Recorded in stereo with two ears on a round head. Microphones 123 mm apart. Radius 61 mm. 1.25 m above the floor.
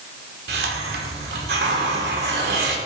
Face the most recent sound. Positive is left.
turn(degrees=-80)